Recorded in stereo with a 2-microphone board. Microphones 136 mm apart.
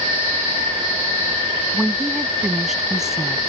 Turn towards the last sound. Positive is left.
turn(degrees=-5)  # may be behind; listen again after turning